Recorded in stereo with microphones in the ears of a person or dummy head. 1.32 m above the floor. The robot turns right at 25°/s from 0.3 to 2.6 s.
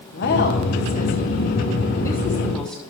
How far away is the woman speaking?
About 2 m.